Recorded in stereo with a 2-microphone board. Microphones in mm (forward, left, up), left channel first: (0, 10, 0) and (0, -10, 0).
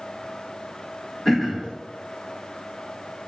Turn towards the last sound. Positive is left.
turn(degrees=20)  # may be behind; listen again after turning